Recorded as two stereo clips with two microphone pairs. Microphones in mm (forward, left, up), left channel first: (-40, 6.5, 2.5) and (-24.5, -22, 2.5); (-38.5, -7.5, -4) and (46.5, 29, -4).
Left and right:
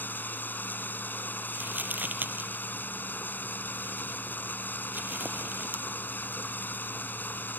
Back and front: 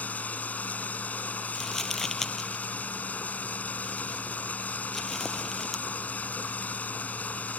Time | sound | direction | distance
0.0 | running water | 130° left | ?
1.6 | crumpling | 70° right | ?